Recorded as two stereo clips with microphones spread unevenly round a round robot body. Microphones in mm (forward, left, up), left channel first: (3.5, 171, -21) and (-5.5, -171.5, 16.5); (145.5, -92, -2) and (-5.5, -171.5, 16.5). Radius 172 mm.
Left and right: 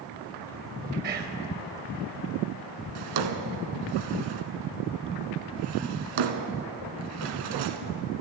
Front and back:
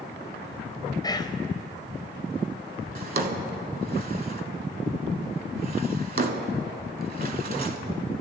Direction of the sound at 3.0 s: 115° right.